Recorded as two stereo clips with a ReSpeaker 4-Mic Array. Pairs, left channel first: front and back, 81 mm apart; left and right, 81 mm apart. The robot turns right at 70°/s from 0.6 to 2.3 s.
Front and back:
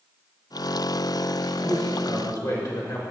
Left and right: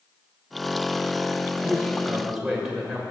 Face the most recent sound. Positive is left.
turn(degrees=-5)